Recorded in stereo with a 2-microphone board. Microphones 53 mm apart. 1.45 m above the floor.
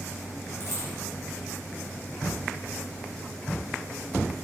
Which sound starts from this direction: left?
A dropped coin, at 0.6 s.